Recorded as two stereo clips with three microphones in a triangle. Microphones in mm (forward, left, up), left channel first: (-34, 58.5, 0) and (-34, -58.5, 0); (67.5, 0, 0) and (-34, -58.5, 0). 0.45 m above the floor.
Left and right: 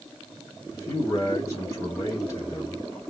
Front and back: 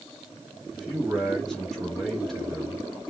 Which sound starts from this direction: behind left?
A man speaking, at 0.7 s.